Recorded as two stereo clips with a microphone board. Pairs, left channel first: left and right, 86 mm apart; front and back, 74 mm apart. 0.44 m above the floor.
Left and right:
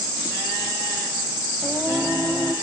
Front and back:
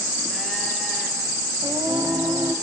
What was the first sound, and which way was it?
Singing, 175° right.